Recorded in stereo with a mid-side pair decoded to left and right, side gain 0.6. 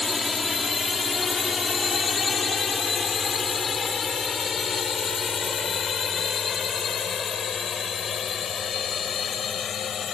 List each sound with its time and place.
0.0 s a drone: 20° left; by 10.1 s 40° left